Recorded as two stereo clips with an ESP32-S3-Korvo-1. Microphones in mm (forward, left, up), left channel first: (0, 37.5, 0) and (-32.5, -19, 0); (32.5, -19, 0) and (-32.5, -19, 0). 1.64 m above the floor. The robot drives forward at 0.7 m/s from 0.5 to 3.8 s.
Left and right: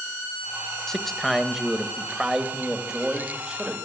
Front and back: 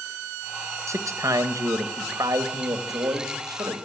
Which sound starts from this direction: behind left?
A man speaking, at 0.9 s.